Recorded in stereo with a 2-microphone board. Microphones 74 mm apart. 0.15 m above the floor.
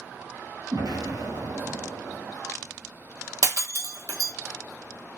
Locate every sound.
0.7 s an explosion: 70° right (ahead or behind), 1.0 m
3.4 s breaking glass: 50° right (ahead or behind), 0.8 m